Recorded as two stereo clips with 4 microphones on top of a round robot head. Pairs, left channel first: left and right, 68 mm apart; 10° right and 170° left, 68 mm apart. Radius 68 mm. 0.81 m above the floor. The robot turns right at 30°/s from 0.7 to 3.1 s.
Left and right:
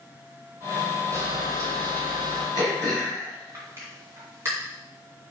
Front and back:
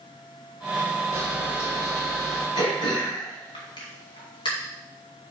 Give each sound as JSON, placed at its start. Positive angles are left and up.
{"t": 1.1, "sound": "a camera shutter", "azimuth_deg": -140, "distance_m": 4.0}
{"t": 2.5, "sound": "throat clearing", "azimuth_deg": -45, "distance_m": 2.0}